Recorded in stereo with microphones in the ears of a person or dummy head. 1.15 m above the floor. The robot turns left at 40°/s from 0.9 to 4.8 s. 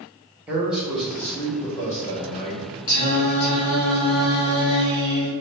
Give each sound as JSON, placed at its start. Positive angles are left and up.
{"t": 0.5, "sound": "a man speaking", "azimuth_deg": -170, "distance_m": 0.9}
{"t": 2.9, "sound": "singing", "azimuth_deg": 80, "distance_m": 1.5}